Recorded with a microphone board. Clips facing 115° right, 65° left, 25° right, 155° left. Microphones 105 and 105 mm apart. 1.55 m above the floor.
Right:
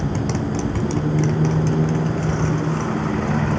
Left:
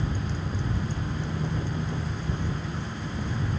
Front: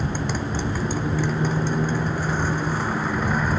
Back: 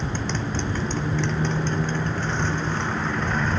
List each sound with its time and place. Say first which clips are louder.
0.0 s a motorcycle: right 10 dB, front 2 dB; 105° right